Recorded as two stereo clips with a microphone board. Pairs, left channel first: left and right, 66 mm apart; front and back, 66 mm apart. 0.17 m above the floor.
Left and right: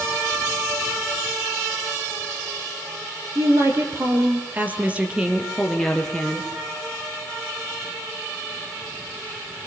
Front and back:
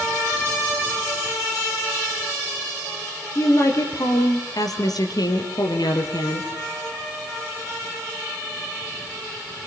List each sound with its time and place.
3.4 s a woman speaking: 45° right, 5.5 m; by 6.5 s 15° left, 5 m